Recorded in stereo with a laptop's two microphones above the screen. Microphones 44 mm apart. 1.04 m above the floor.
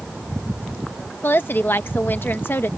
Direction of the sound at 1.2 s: 55° left (ahead or behind).